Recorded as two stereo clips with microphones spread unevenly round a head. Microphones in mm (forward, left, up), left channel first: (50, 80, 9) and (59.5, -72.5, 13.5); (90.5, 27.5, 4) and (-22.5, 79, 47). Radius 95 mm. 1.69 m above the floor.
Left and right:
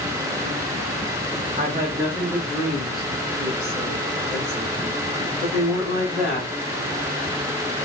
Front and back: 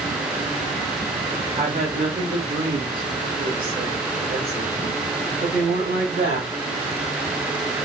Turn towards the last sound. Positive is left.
turn(degrees=155)